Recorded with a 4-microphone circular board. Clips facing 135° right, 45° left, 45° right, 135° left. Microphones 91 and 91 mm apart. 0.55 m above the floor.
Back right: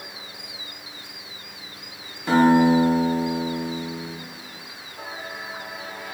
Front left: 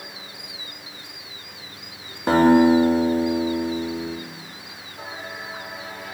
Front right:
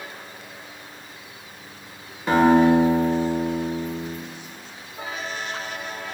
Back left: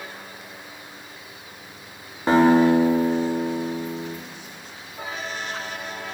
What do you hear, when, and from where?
2.3 s a guitar: 80° left, 0.6 m